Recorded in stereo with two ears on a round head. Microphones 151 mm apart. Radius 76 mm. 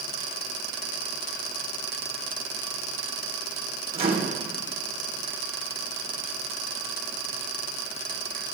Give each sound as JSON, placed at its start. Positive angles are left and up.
{"t": 4.0, "sound": "a microwave", "side_deg": -35, "distance_m": 1.3}